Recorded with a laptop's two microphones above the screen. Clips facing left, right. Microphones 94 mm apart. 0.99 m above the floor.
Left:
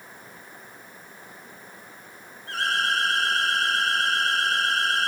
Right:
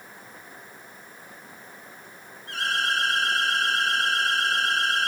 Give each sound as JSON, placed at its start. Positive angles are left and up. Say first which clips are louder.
{"t": 2.5, "sound": "an alarm", "louder": "left 1 dB", "side_deg": 40, "distance_m": 3.5}